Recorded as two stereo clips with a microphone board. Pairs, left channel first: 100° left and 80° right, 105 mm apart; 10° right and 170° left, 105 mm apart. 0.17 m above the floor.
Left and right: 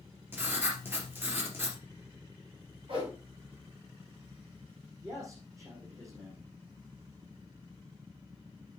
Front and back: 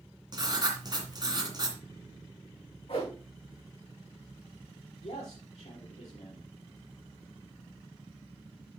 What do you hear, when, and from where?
0.3 s writing: 145° right, 2.5 m
2.9 s a whoosh: 45° right, 5.5 m
5.0 s a man speaking: 20° right, 5 m